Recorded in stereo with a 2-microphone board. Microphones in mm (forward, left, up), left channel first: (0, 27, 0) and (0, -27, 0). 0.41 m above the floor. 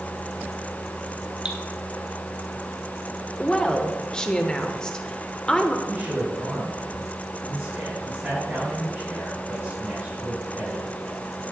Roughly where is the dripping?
Right.